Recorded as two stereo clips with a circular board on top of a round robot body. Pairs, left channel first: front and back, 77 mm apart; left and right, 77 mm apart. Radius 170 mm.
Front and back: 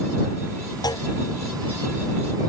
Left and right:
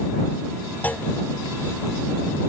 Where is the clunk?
25° left.